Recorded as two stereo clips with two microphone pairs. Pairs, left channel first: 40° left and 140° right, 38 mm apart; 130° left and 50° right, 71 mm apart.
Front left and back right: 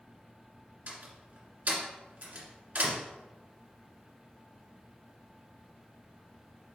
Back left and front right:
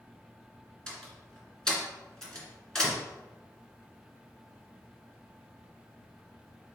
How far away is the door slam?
About 2.0 m.